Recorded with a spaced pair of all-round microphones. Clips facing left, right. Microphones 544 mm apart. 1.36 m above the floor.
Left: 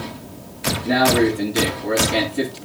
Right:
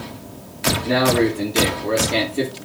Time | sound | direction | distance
0.8 | a man speaking | 10° left (ahead or behind) | 4 m